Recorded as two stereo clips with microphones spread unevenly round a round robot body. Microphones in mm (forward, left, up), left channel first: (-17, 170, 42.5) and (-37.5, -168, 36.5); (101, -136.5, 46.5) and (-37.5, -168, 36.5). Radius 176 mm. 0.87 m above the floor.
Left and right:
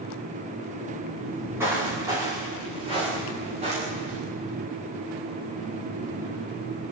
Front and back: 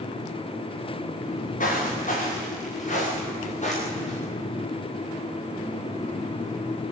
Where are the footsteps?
10° right, 7 m; by 4.2 s 20° right, 9 m.